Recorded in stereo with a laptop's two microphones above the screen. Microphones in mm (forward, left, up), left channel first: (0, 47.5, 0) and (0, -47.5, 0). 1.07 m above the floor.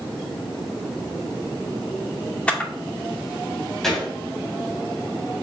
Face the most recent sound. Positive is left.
turn(degrees=5)  # may be behind; listen again after turning